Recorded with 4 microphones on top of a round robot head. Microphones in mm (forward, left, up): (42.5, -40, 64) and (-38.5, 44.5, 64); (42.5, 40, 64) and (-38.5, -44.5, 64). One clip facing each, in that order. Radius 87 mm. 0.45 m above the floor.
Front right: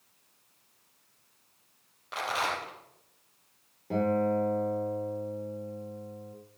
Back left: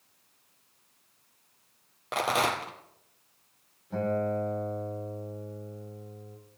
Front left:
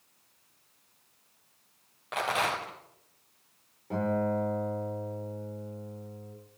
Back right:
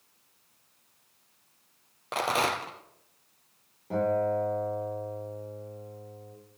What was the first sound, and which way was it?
A rattle, 170° left.